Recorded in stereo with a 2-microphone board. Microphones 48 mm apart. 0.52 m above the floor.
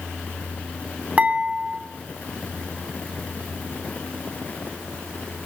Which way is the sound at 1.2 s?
30° right (ahead or behind).